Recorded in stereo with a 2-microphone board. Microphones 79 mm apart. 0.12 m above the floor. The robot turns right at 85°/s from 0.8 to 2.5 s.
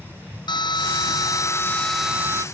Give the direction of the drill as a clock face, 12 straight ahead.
9 o'clock.